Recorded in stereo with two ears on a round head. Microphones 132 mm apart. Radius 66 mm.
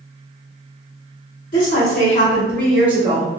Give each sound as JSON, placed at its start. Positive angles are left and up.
{"t": 1.5, "sound": "a woman speaking", "side_deg": 60, "distance_m": 1.7}